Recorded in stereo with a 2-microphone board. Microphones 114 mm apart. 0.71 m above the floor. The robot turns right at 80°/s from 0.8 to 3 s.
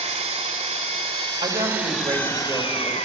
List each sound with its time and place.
0.0 s an engine running: 100° right, 1.7 m; by 3.1 s 80° left, 1.7 m
1.4 s a woman speaking: 90° right, 2 m; by 3.0 s 35° left, 2 m